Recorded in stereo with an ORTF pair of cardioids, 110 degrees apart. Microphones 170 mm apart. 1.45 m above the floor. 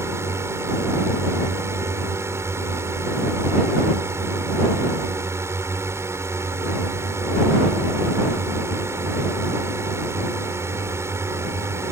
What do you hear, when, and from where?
0.0 s a drone: 15° right